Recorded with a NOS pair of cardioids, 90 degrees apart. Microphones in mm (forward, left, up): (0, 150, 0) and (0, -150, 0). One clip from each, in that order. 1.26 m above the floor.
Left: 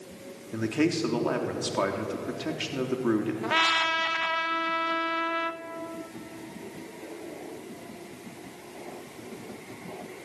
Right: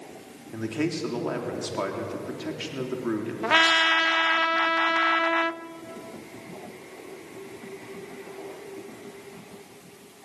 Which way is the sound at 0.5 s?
15° left.